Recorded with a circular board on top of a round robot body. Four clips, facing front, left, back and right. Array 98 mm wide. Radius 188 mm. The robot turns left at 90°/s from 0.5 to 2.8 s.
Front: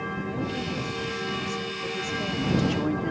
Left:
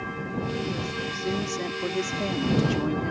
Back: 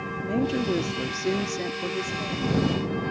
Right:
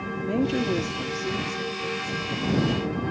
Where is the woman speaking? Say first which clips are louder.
Right 7 dB, back 10 dB; 120° right; by 3.1 s 30° left.